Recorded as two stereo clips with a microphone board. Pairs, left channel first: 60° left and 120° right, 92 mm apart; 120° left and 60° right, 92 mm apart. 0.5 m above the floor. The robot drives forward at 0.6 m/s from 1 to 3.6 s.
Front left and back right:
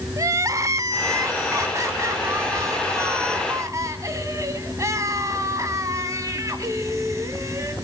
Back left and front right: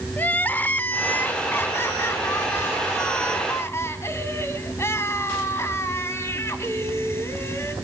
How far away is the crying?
About 0.8 m.